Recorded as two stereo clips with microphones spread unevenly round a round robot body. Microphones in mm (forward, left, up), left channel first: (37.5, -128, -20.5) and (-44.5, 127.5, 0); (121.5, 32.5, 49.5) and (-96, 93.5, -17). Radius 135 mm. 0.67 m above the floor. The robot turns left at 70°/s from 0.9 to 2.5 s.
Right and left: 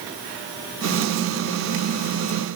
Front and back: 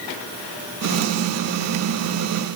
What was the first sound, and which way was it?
Only background noise.